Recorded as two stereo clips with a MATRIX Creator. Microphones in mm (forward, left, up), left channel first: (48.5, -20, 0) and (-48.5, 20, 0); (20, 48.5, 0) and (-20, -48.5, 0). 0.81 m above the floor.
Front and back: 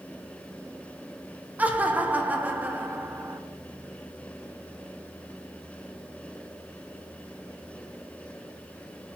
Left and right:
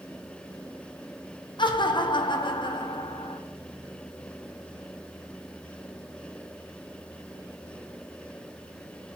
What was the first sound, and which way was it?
Laughter, 85° left.